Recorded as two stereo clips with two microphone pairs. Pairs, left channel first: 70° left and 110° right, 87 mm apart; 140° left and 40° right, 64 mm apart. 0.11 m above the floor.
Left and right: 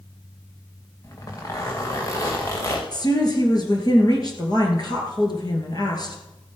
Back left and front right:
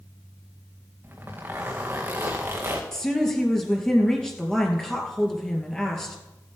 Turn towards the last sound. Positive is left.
turn(degrees=60)